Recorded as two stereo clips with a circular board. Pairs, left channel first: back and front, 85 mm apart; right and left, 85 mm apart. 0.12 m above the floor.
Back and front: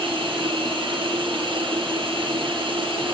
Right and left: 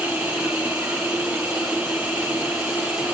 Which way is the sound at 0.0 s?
25° left.